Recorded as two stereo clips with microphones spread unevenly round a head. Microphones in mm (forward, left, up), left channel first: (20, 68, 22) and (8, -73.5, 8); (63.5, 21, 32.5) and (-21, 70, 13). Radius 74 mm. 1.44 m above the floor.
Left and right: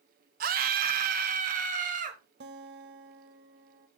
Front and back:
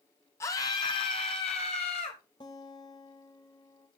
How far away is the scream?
About 0.8 m.